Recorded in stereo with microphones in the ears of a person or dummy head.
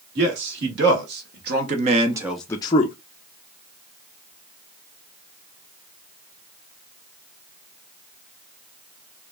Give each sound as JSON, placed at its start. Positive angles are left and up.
{"t": 0.1, "sound": "a man speaking", "side_deg": -60, "distance_m": 1.7}